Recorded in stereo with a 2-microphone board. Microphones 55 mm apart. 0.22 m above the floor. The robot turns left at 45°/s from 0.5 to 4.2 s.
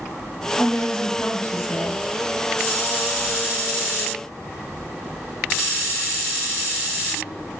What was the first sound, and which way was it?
A woman speaking, 145° left.